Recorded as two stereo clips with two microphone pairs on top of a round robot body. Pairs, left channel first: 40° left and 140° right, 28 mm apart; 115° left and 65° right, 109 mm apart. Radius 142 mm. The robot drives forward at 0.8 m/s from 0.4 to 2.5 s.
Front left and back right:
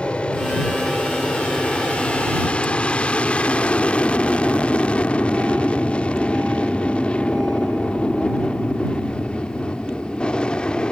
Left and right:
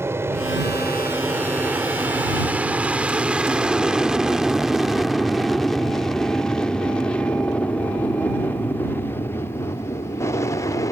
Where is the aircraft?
Straight ahead; by 10.9 s 80° left.